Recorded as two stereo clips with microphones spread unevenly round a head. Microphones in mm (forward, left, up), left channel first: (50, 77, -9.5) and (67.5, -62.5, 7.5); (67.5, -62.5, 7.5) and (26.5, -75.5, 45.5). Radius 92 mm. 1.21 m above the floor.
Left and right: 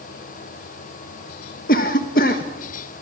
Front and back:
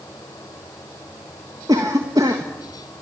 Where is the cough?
140° left, 1.4 m.